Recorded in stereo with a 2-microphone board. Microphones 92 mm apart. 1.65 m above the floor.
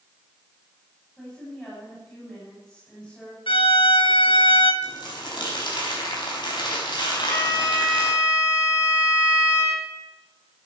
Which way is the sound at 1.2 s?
10° left (ahead or behind).